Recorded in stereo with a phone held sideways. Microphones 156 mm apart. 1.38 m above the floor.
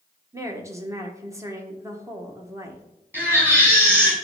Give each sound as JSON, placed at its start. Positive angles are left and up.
{"t": 0.3, "sound": "a woman speaking", "side_deg": -20, "distance_m": 1.4}
{"t": 3.1, "sound": "a baby crying", "side_deg": -10, "distance_m": 4.5}